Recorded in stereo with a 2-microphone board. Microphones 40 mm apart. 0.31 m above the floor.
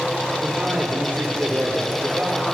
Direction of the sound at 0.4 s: 35° right (ahead or behind).